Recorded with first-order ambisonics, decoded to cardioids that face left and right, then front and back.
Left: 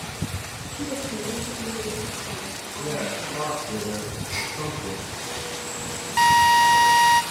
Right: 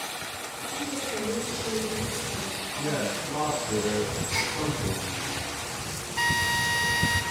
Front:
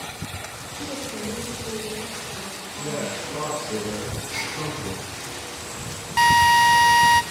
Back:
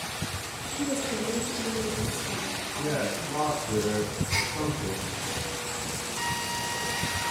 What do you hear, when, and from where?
0.8 s a woman speaking: 160° left, 2.5 m; by 3.3 s 150° left, 4.5 m
2.8 s a man speaking: 155° right, 6.5 m
4.3 s a gasp: 175° left, 2.5 m
6.2 s a drill: 35° left, 0.9 m